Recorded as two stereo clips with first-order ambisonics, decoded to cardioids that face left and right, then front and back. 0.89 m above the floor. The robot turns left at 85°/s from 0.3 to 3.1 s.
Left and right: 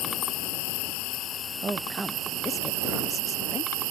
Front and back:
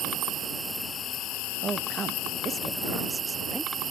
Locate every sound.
0.0 s an insect: 125° left; by 3.9 s 110° right
1.6 s a woman speaking: 140° right; by 3.7 s 95° left